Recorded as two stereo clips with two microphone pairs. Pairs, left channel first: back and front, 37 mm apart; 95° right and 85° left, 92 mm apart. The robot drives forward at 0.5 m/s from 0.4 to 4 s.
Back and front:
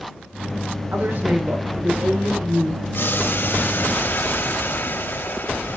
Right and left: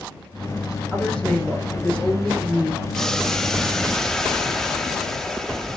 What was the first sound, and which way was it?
A woman speaking, 15° right.